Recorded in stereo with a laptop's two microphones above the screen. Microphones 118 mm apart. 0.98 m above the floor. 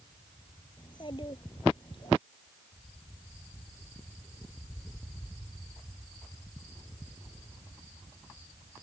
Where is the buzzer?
I don't hear a buzzer.